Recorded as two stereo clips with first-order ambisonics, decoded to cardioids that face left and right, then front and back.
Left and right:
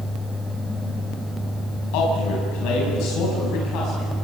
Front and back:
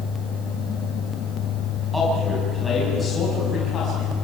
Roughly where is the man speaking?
Left.